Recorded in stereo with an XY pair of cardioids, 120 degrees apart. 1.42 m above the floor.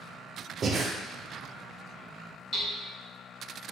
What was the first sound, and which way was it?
Breathing, 40° right.